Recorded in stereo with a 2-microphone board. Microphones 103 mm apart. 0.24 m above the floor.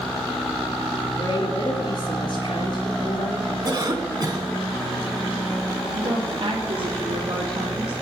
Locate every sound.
1.2 s a woman speaking: 55° left (ahead or behind), 4 m
3.6 s a cough: 40° right (ahead or behind), 1.9 m
5.9 s a woman speaking: 60° right (ahead or behind), 3 m